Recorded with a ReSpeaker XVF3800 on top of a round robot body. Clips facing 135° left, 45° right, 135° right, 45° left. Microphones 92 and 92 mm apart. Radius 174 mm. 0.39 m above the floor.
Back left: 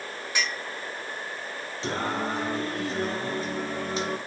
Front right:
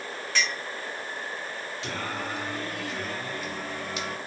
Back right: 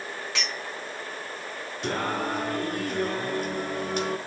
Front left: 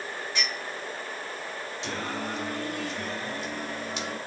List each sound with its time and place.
0.3 s a clink: 145° right, 4 m
1.8 s singing: 170° right, 1.4 m